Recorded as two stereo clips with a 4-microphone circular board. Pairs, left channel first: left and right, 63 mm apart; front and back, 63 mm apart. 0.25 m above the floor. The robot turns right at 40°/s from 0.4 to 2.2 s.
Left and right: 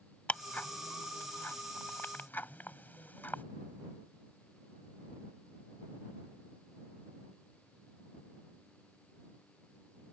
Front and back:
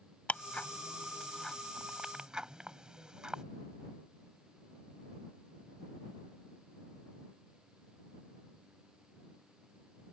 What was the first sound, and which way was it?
Ticking, 45° left.